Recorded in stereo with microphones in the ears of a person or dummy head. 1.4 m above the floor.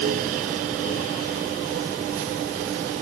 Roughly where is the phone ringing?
No phone ringing in this recording.